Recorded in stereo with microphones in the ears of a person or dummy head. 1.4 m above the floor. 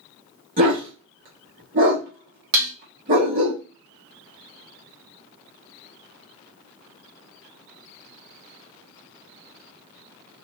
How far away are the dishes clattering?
About 0.5 m.